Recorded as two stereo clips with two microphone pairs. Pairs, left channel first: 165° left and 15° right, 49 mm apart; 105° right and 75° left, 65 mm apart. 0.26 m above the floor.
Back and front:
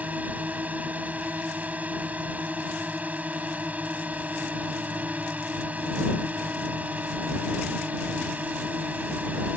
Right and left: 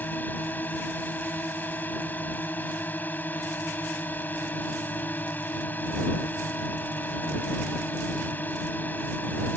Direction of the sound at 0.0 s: 55° right.